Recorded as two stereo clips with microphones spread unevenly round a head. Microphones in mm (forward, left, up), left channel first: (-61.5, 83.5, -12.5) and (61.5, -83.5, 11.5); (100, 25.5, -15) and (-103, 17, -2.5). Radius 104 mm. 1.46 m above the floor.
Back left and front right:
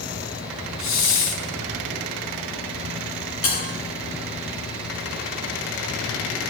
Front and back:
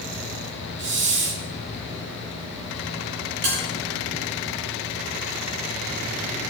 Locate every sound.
0.8 s a hiss: 155° left, 2 m
3.4 s a bell: 150° left, 8 m